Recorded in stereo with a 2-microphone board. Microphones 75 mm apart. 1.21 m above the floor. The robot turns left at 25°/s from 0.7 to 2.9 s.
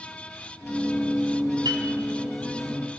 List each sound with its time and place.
1.6 s a piano: 70° right (ahead or behind), 2.5 m